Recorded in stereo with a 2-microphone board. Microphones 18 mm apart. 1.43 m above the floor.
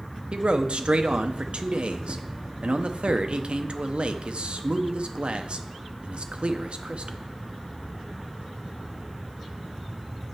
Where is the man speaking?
85° right, 0.6 m.